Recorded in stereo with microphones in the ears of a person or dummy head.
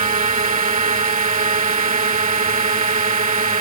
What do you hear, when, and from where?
0.0 s a drone: 30° right (ahead or behind)